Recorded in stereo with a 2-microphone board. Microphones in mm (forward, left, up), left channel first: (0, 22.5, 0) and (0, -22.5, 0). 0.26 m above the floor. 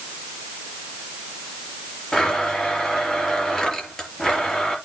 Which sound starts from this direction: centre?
A blender, at 2.1 s.